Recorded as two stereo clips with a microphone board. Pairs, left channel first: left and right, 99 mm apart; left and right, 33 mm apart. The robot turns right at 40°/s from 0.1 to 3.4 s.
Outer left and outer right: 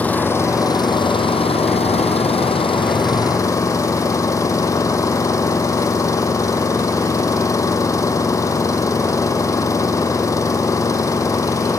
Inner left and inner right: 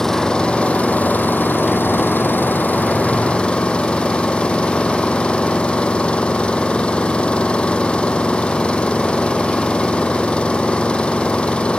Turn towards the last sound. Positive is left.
turn(degrees=145)